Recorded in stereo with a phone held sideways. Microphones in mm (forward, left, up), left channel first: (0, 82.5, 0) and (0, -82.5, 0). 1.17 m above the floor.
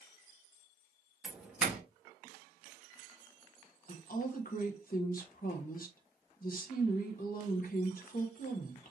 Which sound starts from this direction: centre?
A doorbell, at 1.2 s.